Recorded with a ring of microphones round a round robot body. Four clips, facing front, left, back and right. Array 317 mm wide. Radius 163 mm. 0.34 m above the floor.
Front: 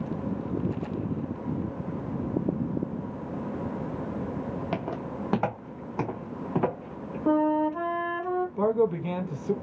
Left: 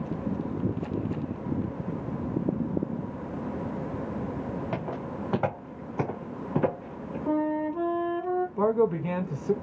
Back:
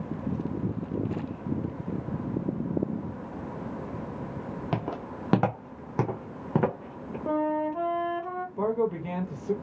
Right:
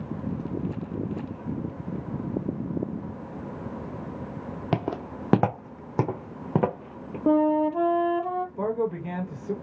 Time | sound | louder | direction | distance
4.7 | footsteps | right 3 dB, front 1 dB | 85° right | 0.9 m
7.3 | a flute | right 6 dB, front 4 dB | 70° right | 0.5 m
8.6 | a man speaking | left 6 dB, front 1 dB | 65° left | 1.3 m